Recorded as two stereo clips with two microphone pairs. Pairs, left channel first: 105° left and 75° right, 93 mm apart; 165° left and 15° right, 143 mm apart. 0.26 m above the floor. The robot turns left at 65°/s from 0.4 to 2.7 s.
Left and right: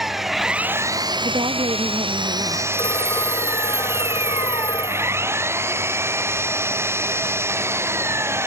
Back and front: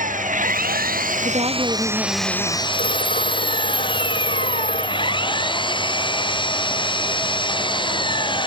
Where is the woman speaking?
50° right; by 2.6 s 140° right.